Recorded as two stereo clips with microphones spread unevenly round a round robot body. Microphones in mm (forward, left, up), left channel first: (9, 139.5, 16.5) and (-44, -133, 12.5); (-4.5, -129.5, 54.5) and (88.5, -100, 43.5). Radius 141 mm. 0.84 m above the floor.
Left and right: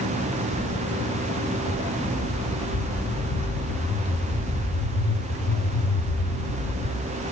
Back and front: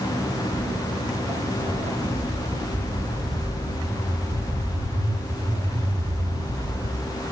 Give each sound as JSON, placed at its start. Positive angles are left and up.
{"t": 0.5, "sound": "footsteps", "azimuth_deg": 40, "distance_m": 10.0}